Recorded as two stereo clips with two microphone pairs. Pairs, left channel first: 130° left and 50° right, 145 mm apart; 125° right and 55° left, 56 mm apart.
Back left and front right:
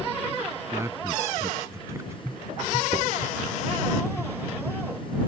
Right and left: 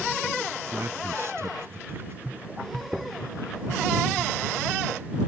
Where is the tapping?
Straight ahead.